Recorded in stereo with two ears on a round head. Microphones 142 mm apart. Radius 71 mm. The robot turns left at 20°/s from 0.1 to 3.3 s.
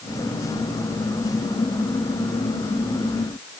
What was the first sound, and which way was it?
Only background noise.